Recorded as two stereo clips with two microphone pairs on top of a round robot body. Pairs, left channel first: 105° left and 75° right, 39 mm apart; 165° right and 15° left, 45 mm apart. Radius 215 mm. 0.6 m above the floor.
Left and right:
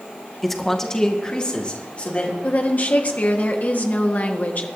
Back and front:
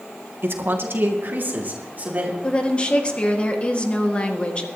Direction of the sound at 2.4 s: 135° left.